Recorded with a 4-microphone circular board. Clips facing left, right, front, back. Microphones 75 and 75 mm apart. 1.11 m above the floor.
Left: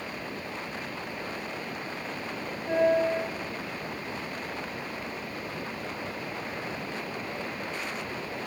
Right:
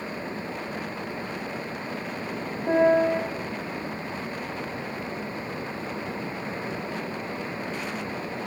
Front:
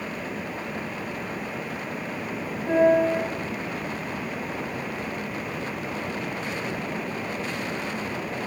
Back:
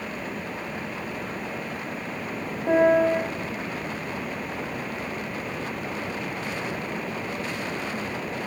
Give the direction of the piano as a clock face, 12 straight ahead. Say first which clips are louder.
Right 4 dB, even; 4 o'clock.